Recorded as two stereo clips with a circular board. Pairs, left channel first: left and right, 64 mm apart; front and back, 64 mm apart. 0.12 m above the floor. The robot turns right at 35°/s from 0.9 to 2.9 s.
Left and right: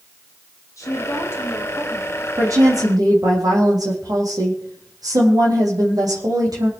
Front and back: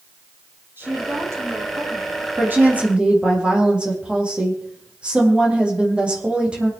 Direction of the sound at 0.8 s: 125° left.